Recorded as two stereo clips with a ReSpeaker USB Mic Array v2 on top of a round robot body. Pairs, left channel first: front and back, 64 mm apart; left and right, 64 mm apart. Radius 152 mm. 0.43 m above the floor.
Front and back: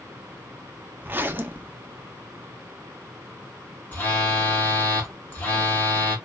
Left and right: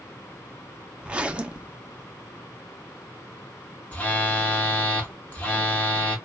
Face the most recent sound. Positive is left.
turn(degrees=45)